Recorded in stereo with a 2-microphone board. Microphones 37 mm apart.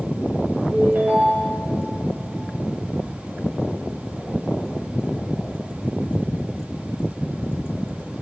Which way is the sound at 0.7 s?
70° right (ahead or behind).